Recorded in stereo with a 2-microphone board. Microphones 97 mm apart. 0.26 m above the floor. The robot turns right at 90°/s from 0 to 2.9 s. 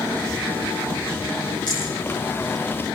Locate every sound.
1.7 s a rattle: 50° left (ahead or behind), 9 m; by 1.9 s 30° left (ahead or behind), 9 m